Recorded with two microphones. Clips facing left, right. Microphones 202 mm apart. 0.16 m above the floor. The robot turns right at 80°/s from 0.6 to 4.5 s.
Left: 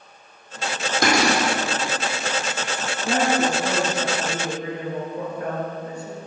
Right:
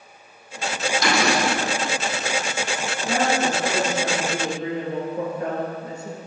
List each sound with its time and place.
1.0 s a cupboard door: 125° left, 2 m; by 1.5 s 165° left, 2 m
3.1 s a woman speaking: 90° left, 2.5 m; by 6.2 s 155° right, 2.5 m